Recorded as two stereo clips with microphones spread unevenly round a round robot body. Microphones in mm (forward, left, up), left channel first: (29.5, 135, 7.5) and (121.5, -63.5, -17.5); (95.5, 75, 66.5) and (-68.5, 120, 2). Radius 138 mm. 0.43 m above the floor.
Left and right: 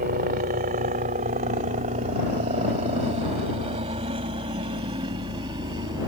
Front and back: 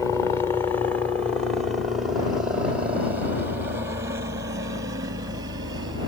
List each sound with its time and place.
0.0 s a helicopter: 105° right; by 6.1 s 140° right